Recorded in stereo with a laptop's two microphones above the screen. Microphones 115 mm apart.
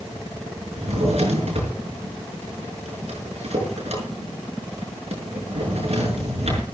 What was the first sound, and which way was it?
A drawer, 70° right (ahead or behind).